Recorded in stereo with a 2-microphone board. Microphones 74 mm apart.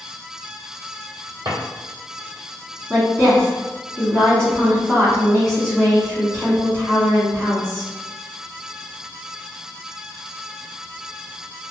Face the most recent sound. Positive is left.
turn(degrees=10)  # may be behind; listen again after turning